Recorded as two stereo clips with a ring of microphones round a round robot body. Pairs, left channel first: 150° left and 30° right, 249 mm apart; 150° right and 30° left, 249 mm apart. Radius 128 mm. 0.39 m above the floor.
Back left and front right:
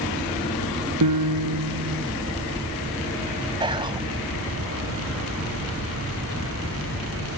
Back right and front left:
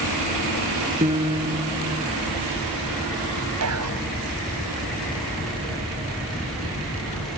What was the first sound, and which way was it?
A piano, 40° right.